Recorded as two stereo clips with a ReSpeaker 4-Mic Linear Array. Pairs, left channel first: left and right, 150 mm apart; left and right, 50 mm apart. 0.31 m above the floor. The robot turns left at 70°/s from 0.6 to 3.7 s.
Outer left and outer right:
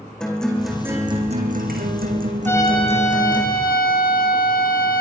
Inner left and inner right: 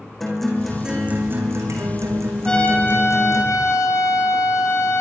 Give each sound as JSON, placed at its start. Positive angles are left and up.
{"t": 0.2, "sound": "a guitar", "azimuth_deg": 5, "distance_m": 5.0}
{"t": 2.5, "sound": "a trumpet", "azimuth_deg": 170, "distance_m": 4.0}